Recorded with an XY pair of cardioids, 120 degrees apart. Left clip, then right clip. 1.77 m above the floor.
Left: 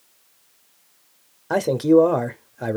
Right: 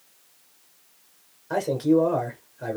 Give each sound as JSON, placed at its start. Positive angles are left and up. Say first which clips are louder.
{"t": 1.5, "sound": "a man speaking", "louder": "left 5 dB", "azimuth_deg": 55, "distance_m": 0.7}